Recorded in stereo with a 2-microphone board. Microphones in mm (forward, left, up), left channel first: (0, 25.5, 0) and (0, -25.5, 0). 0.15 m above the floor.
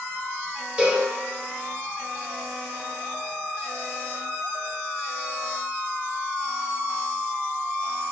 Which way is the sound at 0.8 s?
25° right (ahead or behind).